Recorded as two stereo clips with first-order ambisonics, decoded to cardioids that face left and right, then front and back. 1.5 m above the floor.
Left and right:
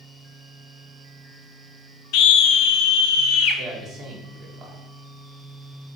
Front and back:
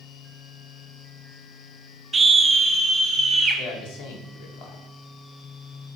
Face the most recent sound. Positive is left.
turn(degrees=-10)